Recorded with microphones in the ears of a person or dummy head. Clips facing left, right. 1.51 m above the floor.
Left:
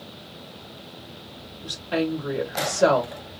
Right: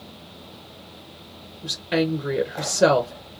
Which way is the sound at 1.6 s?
25° right (ahead or behind).